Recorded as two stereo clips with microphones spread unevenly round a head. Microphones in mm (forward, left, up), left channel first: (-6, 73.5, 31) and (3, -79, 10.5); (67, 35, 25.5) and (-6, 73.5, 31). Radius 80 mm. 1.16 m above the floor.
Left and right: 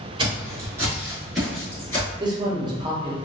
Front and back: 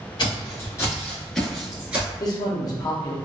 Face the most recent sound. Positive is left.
turn(degrees=-40)